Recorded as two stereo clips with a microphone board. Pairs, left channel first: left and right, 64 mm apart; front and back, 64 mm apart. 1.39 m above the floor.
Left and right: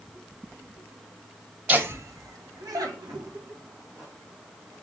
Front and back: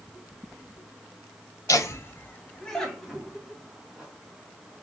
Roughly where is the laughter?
Ahead right.